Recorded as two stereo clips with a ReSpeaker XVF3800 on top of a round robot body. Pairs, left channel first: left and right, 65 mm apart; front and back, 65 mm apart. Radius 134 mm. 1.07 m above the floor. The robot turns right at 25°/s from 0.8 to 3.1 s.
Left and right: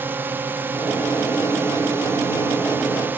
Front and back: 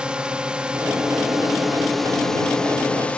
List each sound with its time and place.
0.0 s a drone: 115° right; by 3.2 s 55° right